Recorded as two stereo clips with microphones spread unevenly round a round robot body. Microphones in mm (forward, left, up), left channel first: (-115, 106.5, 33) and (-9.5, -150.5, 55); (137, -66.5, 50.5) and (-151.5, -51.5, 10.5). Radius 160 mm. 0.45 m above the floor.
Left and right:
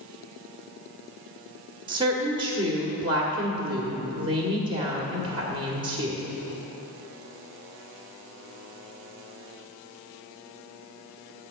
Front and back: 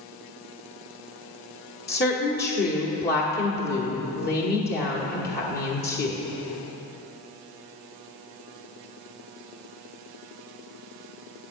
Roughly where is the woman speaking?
Ahead.